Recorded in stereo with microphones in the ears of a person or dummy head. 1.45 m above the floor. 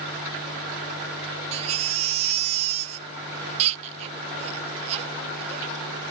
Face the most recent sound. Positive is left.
turn(degrees=-35)  # may be behind; listen again after turning